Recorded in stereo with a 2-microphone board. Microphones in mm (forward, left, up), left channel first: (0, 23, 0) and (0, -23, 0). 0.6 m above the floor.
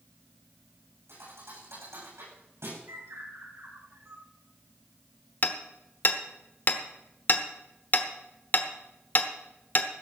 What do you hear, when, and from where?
1.1 s a thud: 85° right, 8.5 m
2.9 s a bird: 75° right (ahead or behind), 2.5 m
5.4 s hammering: 40° left (ahead or behind), 1.0 m